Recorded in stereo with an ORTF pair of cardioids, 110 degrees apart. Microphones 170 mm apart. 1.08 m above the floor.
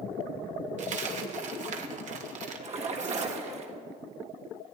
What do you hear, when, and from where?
0.8 s a dropped coin: 50° right, 1.4 m
2.6 s a splash: 40° right, 1.6 m